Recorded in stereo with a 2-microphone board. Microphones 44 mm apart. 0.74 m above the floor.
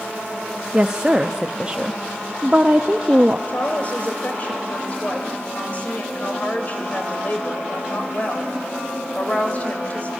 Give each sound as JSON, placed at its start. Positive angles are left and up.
{"t": 0.7, "sound": "a woman speaking", "side_deg": -20, "distance_m": 0.5}
{"t": 3.5, "sound": "a woman speaking", "side_deg": 40, "distance_m": 3.0}